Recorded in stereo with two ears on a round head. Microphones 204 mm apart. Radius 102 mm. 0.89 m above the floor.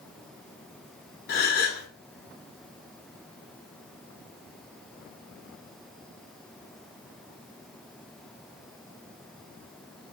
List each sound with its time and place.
1.3 s a gasp: 45° left (ahead or behind), 0.7 m